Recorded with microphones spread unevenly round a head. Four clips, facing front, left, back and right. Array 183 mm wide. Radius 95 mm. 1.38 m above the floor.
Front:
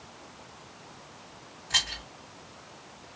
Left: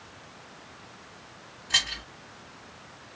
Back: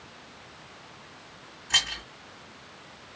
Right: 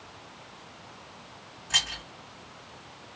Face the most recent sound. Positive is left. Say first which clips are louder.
# left 1 dB, back 3 dB
turn(degrees=-170)